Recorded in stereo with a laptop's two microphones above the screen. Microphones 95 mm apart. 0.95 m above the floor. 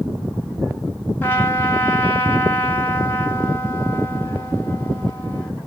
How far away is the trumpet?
About 1.7 m.